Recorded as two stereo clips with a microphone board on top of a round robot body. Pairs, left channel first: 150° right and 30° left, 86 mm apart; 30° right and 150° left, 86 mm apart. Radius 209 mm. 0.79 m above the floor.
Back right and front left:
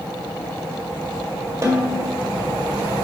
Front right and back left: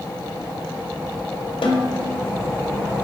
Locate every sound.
1.6 s a snare drum: 30° right, 1.6 m